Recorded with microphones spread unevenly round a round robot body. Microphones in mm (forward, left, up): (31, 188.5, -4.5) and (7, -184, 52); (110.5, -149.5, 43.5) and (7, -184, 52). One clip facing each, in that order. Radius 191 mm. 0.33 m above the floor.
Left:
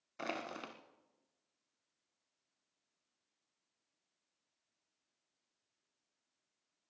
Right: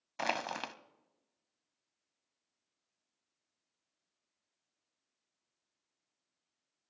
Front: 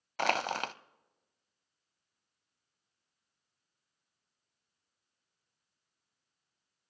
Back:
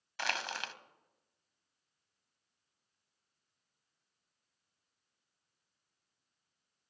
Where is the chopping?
I don't hear chopping.